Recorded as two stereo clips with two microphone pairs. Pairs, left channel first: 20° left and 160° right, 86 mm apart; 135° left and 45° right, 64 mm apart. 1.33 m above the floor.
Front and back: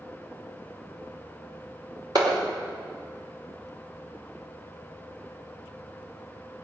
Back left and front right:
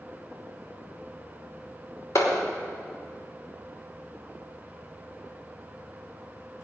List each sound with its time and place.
2.1 s a clap: 165° left, 3 m